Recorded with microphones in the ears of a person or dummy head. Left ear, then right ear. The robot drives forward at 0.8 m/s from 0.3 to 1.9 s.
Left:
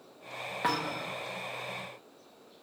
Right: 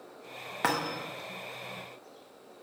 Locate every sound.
0.6 s a thud: 30° right (ahead or behind), 0.8 m; by 1.3 s 20° right (ahead or behind), 1.2 m